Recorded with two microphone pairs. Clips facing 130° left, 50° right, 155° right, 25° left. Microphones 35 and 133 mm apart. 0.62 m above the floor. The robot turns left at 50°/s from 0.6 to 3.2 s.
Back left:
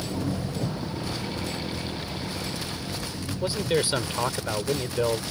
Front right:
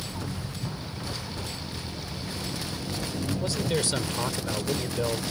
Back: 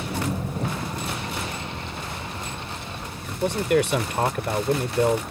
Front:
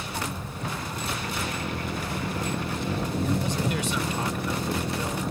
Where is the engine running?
150° left; by 5.3 s 20° left.